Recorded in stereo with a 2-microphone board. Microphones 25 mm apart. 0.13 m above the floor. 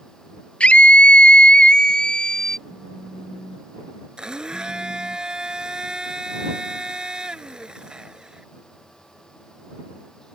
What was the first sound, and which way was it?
A scream, 60° left (ahead or behind).